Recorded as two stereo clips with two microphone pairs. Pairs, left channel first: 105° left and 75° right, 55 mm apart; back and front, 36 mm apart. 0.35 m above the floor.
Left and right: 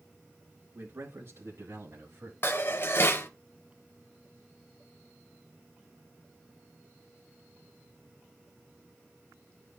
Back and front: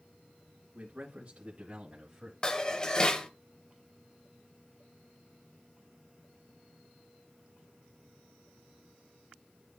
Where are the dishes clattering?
120° left, 0.9 m.